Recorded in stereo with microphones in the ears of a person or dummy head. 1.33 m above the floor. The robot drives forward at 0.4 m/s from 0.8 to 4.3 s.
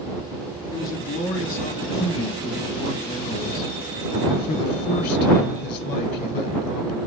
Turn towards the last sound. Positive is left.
turn(degrees=55)  # may be behind; listen again after turning